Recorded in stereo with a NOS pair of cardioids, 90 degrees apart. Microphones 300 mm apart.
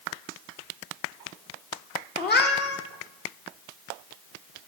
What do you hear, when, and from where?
2.2 s a cat meowing: 35° left, 1.7 m